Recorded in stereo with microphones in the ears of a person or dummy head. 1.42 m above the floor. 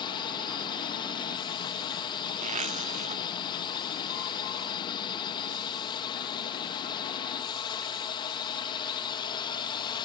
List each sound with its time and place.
0.0 s a drone: 25° left (ahead or behind)
2.4 s a zipper: 35° right (ahead or behind)